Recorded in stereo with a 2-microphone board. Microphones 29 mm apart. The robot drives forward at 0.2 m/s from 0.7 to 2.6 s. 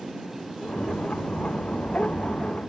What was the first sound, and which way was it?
Only background noise.